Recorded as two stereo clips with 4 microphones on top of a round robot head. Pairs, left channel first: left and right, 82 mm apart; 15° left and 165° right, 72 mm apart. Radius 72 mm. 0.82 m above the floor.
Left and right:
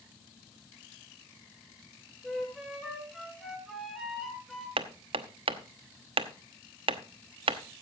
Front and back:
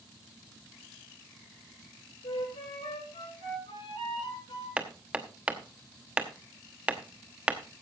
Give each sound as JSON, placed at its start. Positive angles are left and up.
{"t": 2.2, "sound": "a flute", "azimuth_deg": -5, "distance_m": 9.0}
{"t": 4.8, "sound": "hammering", "azimuth_deg": -90, "distance_m": 1.0}